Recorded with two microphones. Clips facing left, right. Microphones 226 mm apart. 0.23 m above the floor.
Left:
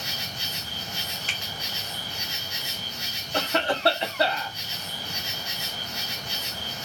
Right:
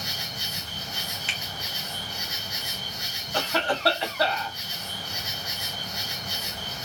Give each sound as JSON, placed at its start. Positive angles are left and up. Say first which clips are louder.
{"t": 0.0, "sound": "an insect", "louder": "even", "side_deg": 25, "distance_m": 1.0}
{"t": 1.3, "sound": "a finger snap", "louder": "even", "side_deg": 40, "distance_m": 1.3}
{"t": 3.3, "sound": "a cough", "louder": "left 1 dB", "side_deg": 20, "distance_m": 1.2}